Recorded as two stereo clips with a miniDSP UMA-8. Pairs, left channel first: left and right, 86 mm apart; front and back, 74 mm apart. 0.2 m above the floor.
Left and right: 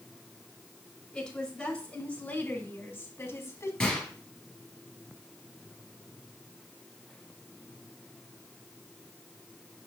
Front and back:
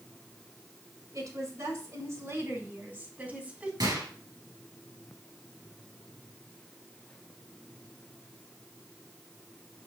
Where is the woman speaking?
170° left, 2.5 m; by 3.7 s 115° left, 1.8 m.